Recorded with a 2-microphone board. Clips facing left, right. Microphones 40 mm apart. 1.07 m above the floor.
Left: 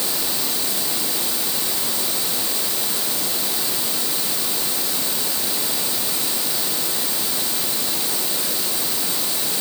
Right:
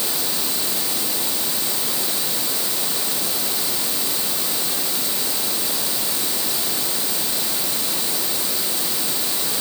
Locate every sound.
Only background noise.